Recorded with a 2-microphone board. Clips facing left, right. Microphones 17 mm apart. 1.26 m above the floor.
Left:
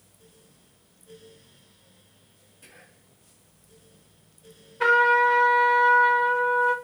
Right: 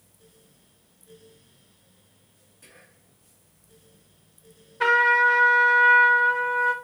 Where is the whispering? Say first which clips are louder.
Left 1 dB; centre (ahead or behind), 1.7 m.